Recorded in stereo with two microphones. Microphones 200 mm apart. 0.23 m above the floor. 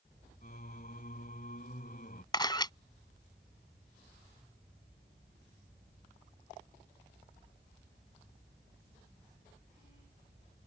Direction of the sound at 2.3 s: 20° left (ahead or behind).